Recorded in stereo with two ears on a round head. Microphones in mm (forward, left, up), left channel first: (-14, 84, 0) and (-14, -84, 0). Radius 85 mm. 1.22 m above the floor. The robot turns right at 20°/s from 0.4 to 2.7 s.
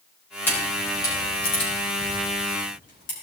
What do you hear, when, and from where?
0.5 s a camera shutter: 10° left (ahead or behind), 4 m; by 3.1 s 55° left (ahead or behind), 4 m